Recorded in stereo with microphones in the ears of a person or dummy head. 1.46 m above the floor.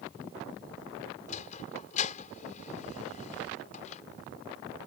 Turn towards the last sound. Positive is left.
turn(degrees=40)  # may be behind; listen again after turning